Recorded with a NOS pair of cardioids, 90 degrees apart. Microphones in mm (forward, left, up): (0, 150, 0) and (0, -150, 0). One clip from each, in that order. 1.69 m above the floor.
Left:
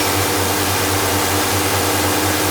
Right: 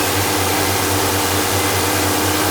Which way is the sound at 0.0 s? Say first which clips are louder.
Even; straight ahead.